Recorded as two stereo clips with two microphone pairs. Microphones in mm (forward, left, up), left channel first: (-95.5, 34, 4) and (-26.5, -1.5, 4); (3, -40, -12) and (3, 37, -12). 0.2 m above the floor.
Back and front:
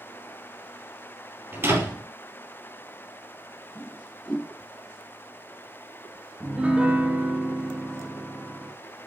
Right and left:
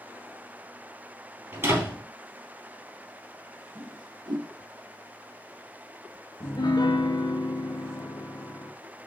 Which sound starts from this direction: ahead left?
A door slam, at 1.5 s.